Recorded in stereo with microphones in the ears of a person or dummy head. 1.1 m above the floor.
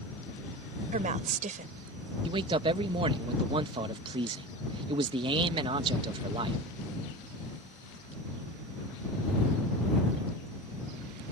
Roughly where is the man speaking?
Right.